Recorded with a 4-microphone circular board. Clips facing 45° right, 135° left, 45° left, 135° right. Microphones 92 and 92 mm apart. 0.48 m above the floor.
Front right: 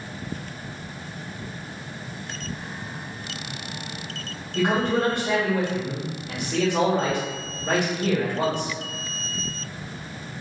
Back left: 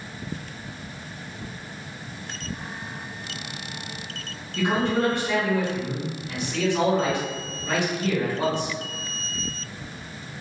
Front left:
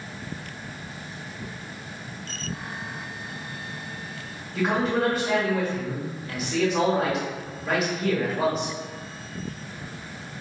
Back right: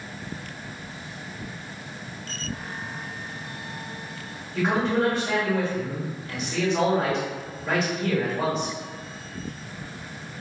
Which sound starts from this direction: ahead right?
A man speaking, at 4.5 s.